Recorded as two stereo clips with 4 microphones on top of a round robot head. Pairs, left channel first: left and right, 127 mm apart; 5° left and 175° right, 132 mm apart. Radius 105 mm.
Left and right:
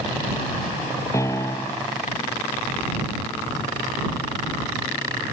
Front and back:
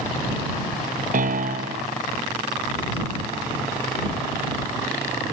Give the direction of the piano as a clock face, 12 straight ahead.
7 o'clock.